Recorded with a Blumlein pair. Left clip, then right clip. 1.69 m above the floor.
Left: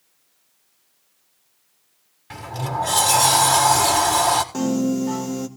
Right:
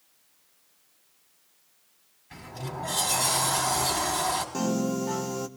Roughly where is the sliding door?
Ahead left.